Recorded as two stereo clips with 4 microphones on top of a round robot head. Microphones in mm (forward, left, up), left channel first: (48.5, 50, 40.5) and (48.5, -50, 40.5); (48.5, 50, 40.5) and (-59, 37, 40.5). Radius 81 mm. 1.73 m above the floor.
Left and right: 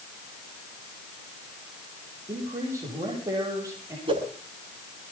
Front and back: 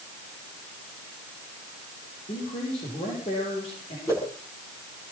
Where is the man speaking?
30° right, 9 m.